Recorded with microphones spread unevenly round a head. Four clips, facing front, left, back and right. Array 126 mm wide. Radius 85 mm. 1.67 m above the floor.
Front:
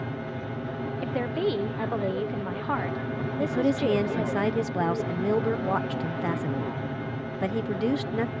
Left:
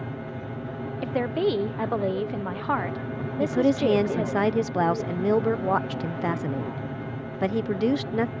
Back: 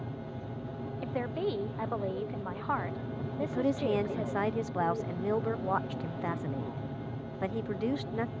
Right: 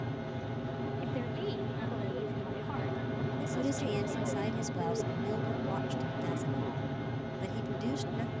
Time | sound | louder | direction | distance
0.0 | an aircraft | left 4 dB, front 7 dB | 10° left | ?
1.0 | a woman speaking | left 16 dB, front 5 dB | 55° left | ?
3.4 | a woman speaking | left 15 dB, front 5 dB | 60° left | ?